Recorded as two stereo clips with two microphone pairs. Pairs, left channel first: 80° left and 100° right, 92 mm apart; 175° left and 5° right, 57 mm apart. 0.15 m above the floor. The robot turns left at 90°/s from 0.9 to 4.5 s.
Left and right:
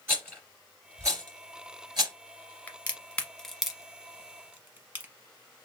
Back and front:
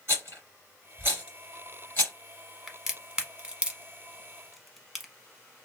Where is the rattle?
35° right, 2.5 m; by 2.1 s 145° right, 2.5 m.